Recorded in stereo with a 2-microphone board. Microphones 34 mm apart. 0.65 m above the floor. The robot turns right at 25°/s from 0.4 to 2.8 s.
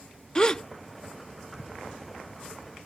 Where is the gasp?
30° left (ahead or behind); by 0.6 s 25° left (ahead or behind).